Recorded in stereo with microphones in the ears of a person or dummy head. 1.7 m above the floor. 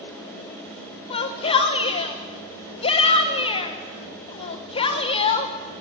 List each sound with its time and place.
1.1 s a shout: 30° left (ahead or behind), 0.9 m